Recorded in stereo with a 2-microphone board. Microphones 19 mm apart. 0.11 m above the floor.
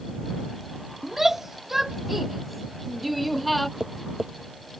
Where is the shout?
20° right (ahead or behind); by 3.7 s 5° left (ahead or behind).